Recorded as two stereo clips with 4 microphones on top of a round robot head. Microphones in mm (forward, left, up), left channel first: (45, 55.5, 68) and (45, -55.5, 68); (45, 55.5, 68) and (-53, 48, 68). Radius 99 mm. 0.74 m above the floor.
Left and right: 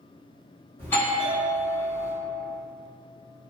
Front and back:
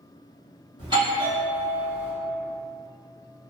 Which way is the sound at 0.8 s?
160° left.